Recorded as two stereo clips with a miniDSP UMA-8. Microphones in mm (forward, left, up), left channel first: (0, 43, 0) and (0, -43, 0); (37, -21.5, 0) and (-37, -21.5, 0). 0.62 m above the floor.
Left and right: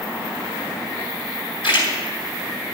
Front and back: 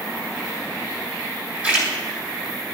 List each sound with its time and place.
1.6 s a splash: 110° left, 4.5 m